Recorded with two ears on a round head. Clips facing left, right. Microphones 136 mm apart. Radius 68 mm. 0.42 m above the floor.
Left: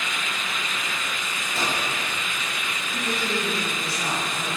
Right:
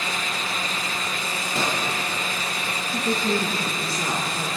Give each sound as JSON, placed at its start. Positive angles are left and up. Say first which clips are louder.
{"t": 1.6, "sound": "a microwave", "louder": "right 2 dB", "side_deg": -70, "distance_m": 8.5}
{"t": 2.9, "sound": "a woman speaking", "louder": "right 4 dB", "side_deg": -80, "distance_m": 9.5}